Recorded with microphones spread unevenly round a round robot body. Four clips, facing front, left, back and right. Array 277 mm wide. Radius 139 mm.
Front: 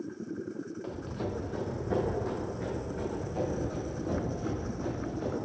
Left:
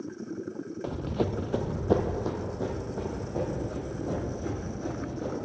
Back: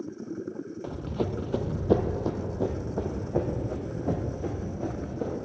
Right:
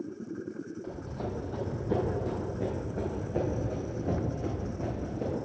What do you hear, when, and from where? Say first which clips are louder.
0.8 s running footsteps: left 11 dB, back 7 dB; 100° left, 0.7 m; by 5.3 s 160° right, 2.5 m